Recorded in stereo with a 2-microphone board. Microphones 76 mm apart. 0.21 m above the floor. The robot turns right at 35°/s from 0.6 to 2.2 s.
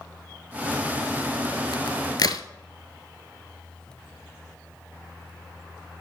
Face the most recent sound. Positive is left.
turn(degrees=60)  # may be behind; listen again after turning